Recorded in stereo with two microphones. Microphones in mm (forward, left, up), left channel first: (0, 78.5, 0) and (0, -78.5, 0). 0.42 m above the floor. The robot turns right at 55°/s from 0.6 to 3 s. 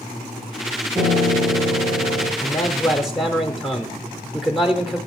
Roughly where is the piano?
Behind.